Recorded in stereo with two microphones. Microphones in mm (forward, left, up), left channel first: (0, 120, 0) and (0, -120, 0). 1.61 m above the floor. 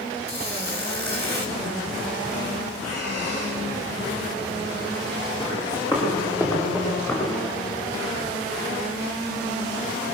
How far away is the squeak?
About 5 m.